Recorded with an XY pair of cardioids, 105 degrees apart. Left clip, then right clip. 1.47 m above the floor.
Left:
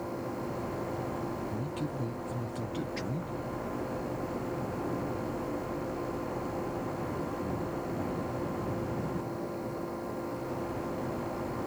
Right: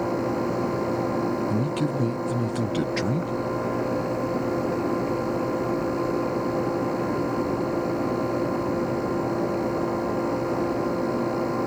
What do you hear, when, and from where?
0.0 s a fan: 65° right
1.5 s a man speaking: 65° right